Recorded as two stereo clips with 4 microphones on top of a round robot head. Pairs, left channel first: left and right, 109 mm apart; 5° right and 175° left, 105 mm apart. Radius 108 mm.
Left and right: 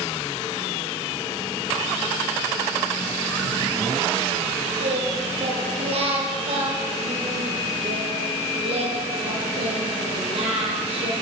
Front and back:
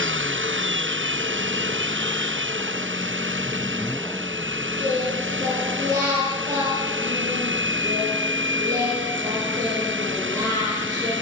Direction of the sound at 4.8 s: 120° right.